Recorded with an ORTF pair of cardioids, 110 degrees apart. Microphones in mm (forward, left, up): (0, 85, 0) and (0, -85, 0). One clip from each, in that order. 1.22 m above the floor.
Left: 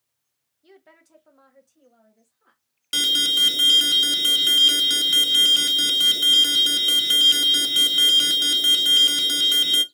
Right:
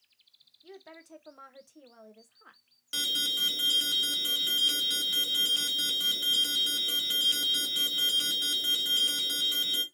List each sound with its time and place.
0.6 s a woman speaking: 5° right, 0.9 m; by 2.6 s 60° right, 1.5 m
2.9 s an alarm: 40° left, 0.5 m